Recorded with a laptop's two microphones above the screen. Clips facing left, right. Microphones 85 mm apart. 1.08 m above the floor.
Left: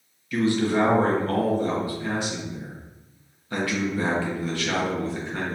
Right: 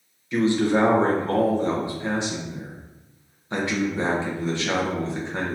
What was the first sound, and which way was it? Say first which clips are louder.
A man speaking: right 2 dB; 20° right (ahead or behind).